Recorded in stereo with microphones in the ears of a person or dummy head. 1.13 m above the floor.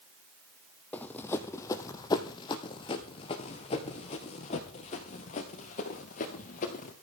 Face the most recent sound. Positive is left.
turn(degrees=45)  # may be behind; listen again after turning